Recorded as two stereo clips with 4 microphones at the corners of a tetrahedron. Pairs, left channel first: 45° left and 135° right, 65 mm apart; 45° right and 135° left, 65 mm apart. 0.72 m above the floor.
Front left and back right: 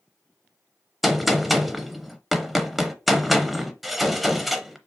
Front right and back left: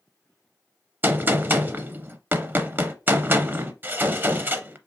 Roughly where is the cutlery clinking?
I don't hear cutlery clinking.